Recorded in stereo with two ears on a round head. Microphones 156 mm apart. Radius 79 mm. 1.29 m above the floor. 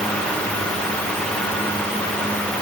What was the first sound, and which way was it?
Only background noise.